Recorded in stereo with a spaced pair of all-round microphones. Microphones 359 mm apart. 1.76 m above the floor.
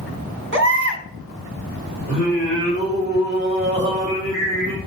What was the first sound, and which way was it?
A baby crying, 30° right (ahead or behind).